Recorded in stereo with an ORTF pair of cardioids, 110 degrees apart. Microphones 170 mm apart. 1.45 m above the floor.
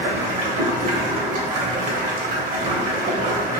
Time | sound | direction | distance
0.0 | running water | 50° right | 0.8 m